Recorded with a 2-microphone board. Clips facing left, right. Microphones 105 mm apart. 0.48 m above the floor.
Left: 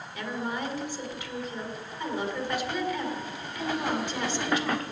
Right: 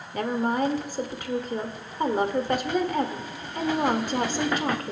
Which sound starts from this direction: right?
A woman speaking, at 0.1 s.